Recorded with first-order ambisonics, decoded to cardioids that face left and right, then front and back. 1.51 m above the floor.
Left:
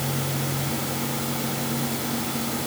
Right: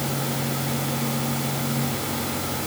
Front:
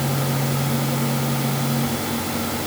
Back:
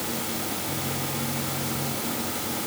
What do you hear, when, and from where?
Only background noise.